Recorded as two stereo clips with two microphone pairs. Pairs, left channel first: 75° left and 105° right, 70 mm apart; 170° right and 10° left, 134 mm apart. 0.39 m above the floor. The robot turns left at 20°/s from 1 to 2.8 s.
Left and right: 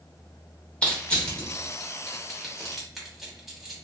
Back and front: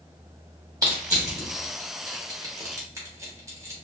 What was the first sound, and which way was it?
Crushing, 20° left.